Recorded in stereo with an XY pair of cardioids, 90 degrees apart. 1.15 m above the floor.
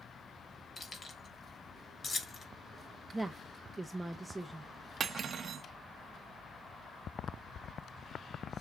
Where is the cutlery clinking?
60° right, 0.8 m.